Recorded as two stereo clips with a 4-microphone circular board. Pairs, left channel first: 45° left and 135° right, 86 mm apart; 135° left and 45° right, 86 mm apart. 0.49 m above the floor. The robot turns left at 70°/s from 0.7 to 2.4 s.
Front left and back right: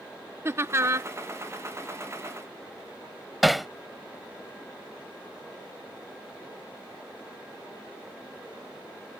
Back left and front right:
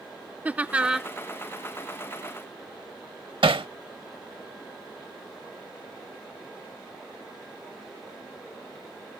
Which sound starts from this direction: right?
Laughter, at 0.5 s.